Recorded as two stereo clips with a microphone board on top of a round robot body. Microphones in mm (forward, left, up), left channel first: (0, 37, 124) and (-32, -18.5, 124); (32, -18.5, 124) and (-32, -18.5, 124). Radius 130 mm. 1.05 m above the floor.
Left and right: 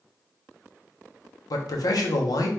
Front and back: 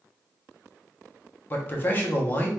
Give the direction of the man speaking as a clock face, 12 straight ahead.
10 o'clock.